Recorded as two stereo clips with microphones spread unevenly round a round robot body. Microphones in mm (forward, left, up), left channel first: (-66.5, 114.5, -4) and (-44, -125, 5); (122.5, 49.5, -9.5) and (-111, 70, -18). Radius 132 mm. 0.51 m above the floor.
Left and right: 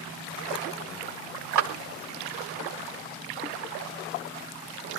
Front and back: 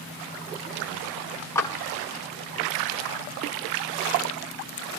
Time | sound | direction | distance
1.6 | a clap | 85° right | 3 m